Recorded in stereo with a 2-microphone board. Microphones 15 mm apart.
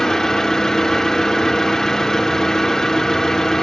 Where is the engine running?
50° left (ahead or behind), 1.1 m.